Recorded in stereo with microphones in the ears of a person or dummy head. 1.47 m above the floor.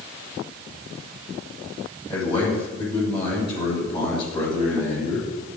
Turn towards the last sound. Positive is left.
turn(degrees=30)  # may be behind; listen again after turning